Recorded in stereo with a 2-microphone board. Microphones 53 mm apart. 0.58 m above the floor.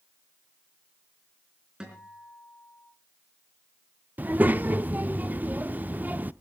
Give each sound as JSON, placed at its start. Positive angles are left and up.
{"t": 1.8, "sound": "a guitar", "side_deg": -15, "distance_m": 4.0}
{"t": 4.2, "sound": "a child speaking", "side_deg": -35, "distance_m": 0.5}